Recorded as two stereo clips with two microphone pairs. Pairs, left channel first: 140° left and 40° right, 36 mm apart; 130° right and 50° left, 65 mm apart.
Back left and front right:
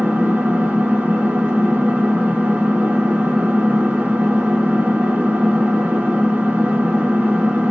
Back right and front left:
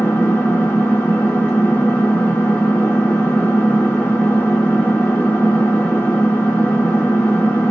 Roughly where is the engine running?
Ahead right.